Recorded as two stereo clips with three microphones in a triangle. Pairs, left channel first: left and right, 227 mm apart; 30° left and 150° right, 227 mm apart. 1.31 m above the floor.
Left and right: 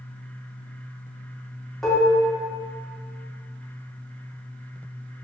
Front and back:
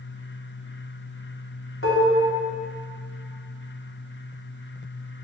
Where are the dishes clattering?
Straight ahead, 2.5 m.